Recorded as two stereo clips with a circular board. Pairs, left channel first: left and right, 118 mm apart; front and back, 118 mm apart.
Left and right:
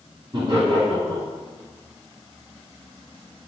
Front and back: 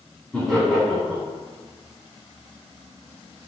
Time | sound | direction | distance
0.3 | laughter | 85° right | 1.3 m